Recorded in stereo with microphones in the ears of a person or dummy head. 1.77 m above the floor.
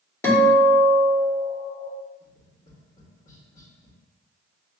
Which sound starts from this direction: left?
Tapping, at 2.2 s.